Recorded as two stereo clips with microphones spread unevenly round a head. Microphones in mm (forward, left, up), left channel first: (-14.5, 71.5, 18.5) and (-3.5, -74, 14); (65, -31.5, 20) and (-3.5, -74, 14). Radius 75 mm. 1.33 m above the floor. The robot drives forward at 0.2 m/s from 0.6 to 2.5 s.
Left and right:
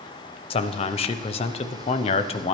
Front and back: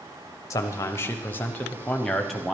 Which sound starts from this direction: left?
A man speaking, at 0.5 s.